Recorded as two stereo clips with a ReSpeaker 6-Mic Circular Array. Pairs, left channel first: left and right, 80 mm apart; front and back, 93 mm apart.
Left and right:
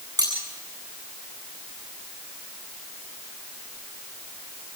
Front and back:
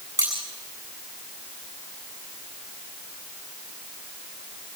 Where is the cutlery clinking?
125° right, 8.5 m.